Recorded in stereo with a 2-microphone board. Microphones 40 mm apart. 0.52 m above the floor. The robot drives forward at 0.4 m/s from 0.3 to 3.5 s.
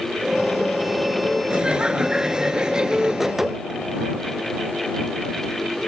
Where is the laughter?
25° right (ahead or behind); by 3.4 s 20° right (ahead or behind).